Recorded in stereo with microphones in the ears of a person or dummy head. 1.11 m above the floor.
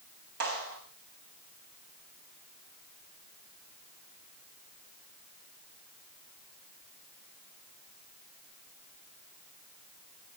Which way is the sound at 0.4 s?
65° right (ahead or behind).